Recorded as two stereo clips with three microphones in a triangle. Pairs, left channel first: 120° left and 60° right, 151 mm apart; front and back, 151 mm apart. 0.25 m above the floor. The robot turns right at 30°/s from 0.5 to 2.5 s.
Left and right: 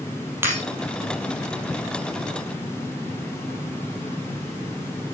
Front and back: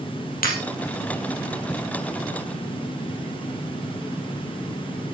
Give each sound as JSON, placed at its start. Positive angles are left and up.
{"t": 0.4, "sound": "breaking glass", "azimuth_deg": 15, "distance_m": 3.0}